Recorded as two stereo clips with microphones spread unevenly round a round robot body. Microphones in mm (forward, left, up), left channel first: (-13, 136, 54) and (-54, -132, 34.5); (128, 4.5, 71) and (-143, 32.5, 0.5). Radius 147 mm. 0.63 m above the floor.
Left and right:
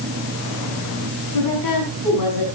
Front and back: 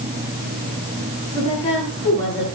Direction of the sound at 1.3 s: 65° left.